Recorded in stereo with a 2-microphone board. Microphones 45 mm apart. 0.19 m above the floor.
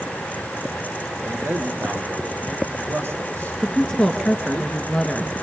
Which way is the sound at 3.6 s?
15° left (ahead or behind).